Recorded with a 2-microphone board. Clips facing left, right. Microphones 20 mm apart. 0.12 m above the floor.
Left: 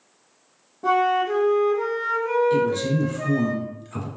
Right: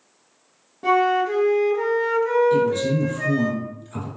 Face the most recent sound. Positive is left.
turn(degrees=20)  # may be behind; listen again after turning